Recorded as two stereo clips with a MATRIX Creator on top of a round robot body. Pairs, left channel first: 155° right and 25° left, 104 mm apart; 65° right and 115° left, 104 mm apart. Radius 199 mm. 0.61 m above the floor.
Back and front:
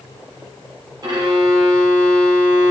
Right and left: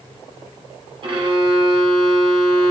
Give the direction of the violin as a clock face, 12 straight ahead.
9 o'clock.